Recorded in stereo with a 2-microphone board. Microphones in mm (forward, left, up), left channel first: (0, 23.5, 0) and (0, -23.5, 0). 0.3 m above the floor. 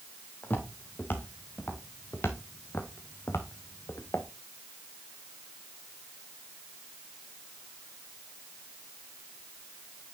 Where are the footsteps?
45° left (ahead or behind), 4 m; by 4.3 s 70° left (ahead or behind), 1.9 m.